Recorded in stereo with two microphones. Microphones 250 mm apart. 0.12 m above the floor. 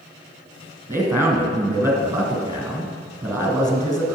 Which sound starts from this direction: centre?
A man speaking, at 0.9 s.